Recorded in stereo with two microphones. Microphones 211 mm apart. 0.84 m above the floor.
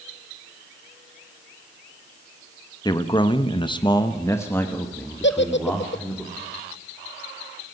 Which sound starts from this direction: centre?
A man speaking, at 2.9 s.